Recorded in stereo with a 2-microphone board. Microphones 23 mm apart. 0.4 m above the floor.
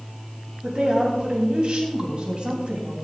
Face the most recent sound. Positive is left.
turn(degrees=-50)  # may be behind; listen again after turning